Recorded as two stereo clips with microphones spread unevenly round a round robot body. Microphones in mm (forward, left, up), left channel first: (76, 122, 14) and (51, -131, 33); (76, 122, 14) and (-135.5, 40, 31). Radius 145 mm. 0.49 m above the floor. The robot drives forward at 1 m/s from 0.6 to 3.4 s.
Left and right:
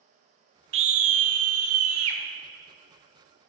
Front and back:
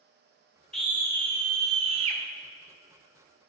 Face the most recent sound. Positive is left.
turn(degrees=-155)